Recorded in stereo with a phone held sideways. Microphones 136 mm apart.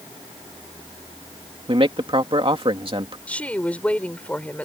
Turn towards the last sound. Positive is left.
turn(degrees=10)  # may be behind; listen again after turning